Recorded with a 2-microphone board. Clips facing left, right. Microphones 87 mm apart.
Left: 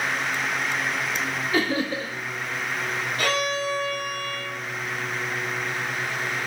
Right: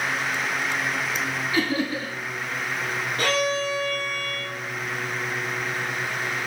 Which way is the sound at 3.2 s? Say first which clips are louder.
Right 2 dB; 35° right (ahead or behind).